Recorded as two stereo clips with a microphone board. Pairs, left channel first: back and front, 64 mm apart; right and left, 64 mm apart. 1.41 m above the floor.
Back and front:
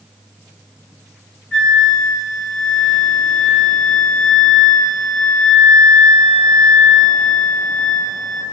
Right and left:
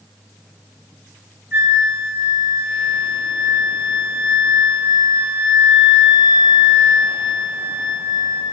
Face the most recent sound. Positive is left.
turn(degrees=110)